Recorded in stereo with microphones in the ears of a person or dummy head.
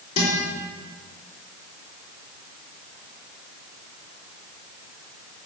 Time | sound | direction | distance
0.2 | a guitar | 35° left (ahead or behind) | 4 m